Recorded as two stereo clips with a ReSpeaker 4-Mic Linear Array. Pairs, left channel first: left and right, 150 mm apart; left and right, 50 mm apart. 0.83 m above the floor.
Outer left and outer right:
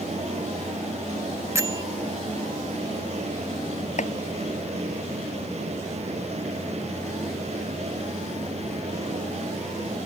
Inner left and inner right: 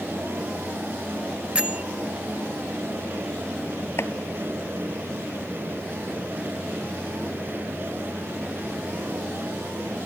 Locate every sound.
1.6 s a bell: 20° right (ahead or behind)
4.0 s chopping: 50° left (ahead or behind)